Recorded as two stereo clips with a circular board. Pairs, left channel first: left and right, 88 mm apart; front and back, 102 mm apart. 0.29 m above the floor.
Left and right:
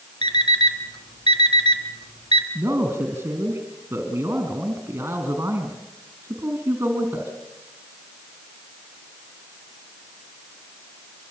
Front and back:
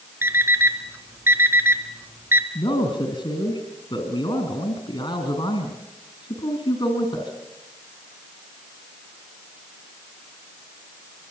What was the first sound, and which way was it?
An alarm clock, 115° left.